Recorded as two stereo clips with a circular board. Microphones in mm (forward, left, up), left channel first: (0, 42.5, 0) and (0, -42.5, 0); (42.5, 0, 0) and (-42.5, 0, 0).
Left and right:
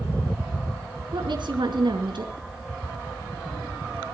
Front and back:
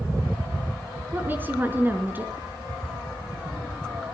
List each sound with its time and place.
1.1 s a woman speaking: 115° right, 4 m